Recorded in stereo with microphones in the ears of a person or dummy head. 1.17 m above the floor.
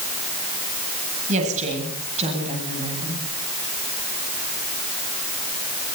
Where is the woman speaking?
40° right (ahead or behind), 8 m; by 3.2 s 30° right (ahead or behind), 8.5 m.